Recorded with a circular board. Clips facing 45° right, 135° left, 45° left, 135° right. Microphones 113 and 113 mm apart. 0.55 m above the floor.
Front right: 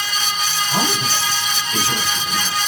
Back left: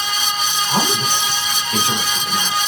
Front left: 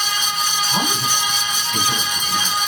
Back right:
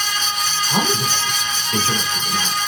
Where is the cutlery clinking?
No cutlery clinking in this recording.